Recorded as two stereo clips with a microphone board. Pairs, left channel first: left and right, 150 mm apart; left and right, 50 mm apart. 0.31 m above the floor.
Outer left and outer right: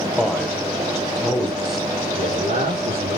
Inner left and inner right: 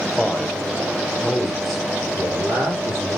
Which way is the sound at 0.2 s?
Centre (ahead or behind).